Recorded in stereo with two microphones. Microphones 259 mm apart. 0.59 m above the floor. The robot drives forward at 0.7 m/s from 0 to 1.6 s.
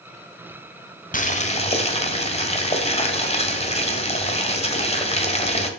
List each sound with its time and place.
1.1 s boiling: 30° left (ahead or behind), 1.0 m; by 5.7 s 25° left (ahead or behind), 1.3 m